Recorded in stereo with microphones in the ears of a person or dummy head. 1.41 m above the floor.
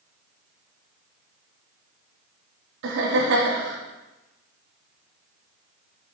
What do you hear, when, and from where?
2.8 s laughter: 60° right (ahead or behind), 1.5 m